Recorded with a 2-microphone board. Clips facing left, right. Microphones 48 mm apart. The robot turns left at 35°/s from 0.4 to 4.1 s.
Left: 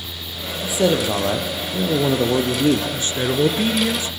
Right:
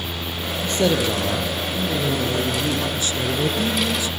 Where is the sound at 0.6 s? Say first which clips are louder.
Left 2 dB; 175° left, 3 m; by 2.8 s 100° left, 3 m.